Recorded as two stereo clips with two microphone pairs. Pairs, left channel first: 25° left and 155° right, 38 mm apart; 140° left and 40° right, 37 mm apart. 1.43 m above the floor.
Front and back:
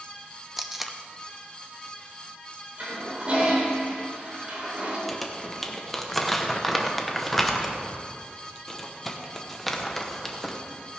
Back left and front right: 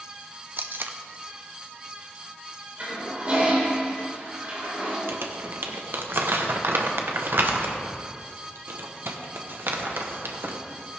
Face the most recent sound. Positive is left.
turn(degrees=-60)